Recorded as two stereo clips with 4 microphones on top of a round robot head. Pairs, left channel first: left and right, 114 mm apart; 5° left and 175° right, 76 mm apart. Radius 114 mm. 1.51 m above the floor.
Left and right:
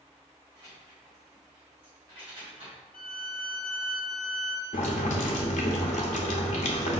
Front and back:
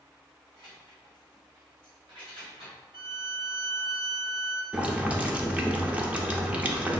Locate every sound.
0.5 s keys jangling: 165° right, 1.3 m; by 2.8 s 145° right, 2.5 m
2.9 s a violin: 175° left, 0.7 m
4.7 s boiling: 110° left, 0.8 m